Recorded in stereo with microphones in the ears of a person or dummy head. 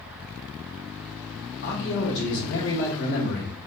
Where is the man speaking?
55° left (ahead or behind), 1.0 m.